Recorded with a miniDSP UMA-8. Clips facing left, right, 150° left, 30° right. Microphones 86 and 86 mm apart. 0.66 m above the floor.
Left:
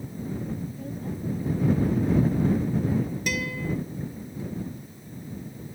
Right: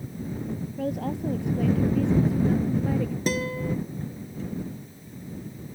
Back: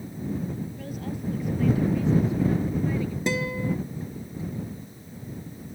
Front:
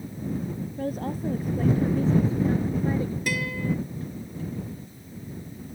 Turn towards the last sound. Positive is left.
turn(degrees=-145)